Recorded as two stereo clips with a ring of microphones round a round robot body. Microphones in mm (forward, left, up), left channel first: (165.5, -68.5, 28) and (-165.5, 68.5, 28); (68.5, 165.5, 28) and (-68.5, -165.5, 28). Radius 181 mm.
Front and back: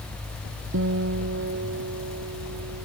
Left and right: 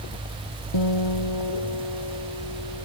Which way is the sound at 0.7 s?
100° left.